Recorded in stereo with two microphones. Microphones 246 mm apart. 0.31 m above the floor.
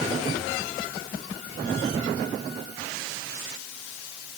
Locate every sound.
Only background noise.